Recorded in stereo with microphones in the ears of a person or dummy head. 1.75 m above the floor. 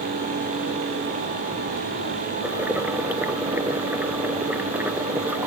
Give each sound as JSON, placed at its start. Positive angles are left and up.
{"t": 2.4, "sound": "boiling", "side_deg": -10}